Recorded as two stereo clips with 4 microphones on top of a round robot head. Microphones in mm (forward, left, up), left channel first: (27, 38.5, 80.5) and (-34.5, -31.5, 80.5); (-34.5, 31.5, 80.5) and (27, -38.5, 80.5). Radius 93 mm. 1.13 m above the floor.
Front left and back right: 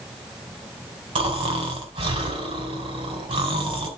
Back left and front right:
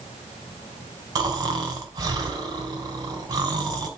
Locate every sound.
1.1 s snoring: 100° right, 2.5 m